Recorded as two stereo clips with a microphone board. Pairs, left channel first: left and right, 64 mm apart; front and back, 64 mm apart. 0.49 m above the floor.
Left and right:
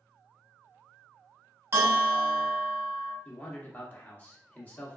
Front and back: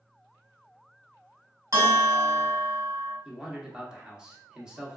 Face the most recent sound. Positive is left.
turn(degrees=115)